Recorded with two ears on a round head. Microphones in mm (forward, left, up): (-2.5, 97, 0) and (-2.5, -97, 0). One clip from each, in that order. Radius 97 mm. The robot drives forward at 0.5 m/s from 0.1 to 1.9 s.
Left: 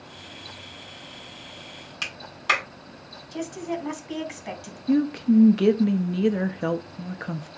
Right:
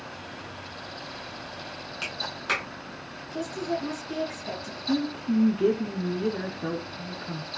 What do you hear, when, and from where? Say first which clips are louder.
2.0 s a clap: left 5 dB; 40° left (ahead or behind), 3.5 m
3.3 s a woman speaking: right 1 dB; 35° left (ahead or behind), 2.5 m
4.9 s a woman speaking: left 6 dB; 75° left (ahead or behind), 0.6 m